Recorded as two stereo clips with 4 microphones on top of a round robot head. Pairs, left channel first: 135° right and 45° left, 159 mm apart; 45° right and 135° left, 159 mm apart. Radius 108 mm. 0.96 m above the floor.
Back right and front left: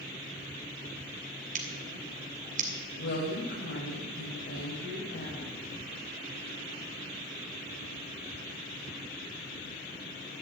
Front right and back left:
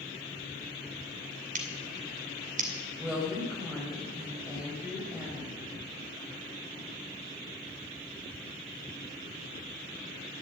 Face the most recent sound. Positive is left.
turn(degrees=-150)